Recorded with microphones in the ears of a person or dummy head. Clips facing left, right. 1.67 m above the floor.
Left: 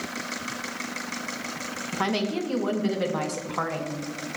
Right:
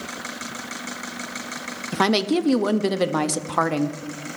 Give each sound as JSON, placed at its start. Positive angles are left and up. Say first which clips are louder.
{"t": 1.9, "sound": "a woman speaking", "louder": "right 7 dB", "side_deg": -70, "distance_m": 0.6}